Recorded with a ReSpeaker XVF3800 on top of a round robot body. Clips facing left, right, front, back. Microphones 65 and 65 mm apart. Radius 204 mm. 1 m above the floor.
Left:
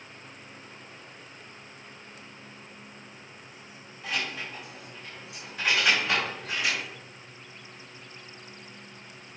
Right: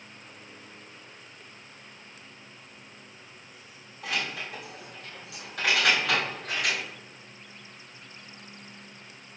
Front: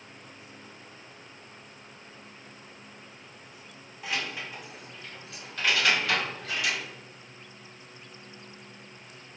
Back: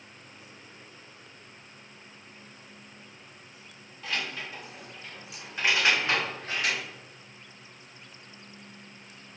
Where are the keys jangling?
75° right, 2 m; by 6.8 s 130° right, 2.5 m.